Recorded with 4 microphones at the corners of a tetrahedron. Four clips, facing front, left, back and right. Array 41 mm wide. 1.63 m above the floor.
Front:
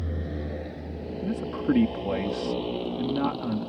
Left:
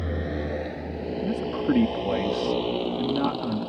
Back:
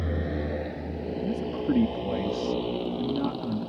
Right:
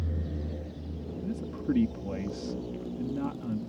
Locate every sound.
0.0 s a motorcycle: 120° left; by 3.7 s 85° left
1.2 s a man speaking: 55° left